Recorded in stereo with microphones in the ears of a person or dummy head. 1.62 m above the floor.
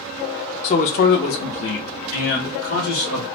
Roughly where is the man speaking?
Left.